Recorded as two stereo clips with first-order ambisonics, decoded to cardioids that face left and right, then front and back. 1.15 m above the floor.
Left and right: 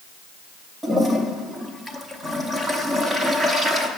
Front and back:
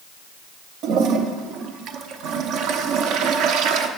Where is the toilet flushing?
170° right, 0.8 m.